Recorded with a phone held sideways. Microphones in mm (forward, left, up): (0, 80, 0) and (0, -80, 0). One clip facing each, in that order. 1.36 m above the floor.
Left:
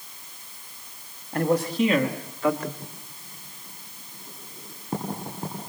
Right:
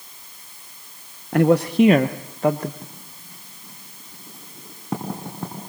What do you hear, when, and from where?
1.3 s a man speaking: 80° right, 1.0 m; by 2.7 s 35° right (ahead or behind), 1.4 m
2.8 s writing: 75° right (ahead or behind), 8 m